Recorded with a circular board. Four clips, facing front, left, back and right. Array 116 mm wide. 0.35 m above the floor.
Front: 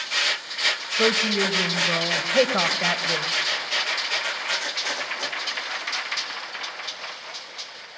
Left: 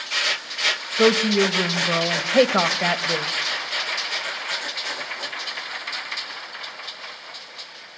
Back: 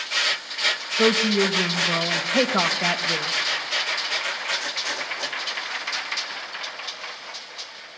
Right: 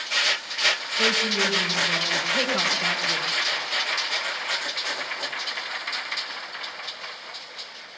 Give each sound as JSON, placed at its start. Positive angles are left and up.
{"t": 1.0, "sound": "a woman speaking", "azimuth_deg": 85, "distance_m": 1.5}